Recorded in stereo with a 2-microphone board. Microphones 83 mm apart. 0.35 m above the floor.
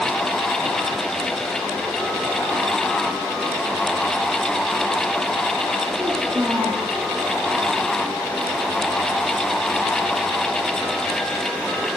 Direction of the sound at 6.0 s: 40° right (ahead or behind).